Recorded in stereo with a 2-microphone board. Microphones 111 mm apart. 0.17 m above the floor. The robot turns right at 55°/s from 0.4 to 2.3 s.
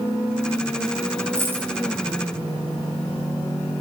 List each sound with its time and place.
1.4 s a dropped coin: 25° right (ahead or behind), 1.9 m; by 1.7 s 5° right (ahead or behind), 1.9 m